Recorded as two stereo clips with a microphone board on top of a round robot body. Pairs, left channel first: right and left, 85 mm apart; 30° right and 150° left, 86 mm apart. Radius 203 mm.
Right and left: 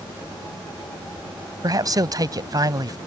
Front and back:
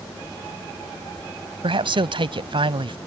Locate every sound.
1.6 s a man speaking: 135° left